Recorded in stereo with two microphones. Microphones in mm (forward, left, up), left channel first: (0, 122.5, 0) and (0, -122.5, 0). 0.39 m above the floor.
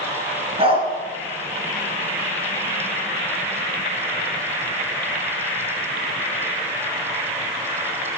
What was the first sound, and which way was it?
A dog barking, 25° right (ahead or behind).